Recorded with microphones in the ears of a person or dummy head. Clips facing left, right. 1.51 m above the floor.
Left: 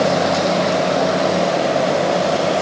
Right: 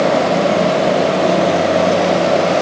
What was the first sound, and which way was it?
Only background noise.